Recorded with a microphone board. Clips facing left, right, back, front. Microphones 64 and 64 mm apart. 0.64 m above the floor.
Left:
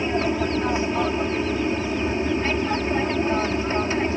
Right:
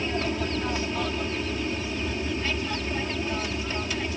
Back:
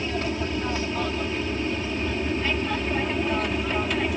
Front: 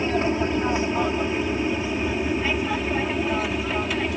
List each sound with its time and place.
0.0 s an aircraft: 45° left; by 4.2 s 90° left